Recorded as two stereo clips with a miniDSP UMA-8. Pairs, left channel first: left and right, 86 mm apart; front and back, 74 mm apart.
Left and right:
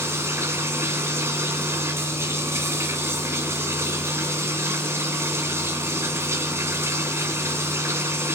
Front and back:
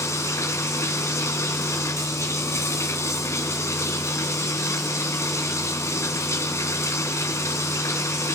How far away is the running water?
About 1.9 m.